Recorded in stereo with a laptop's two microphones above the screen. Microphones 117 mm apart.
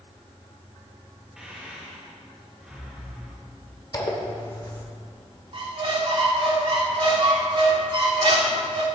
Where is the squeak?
45° right (ahead or behind), 0.9 m.